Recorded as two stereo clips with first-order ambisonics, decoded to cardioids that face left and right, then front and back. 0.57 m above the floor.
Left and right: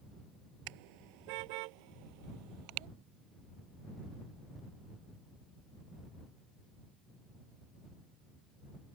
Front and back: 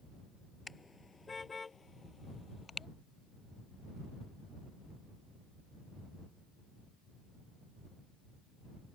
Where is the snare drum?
I don't hear a snare drum.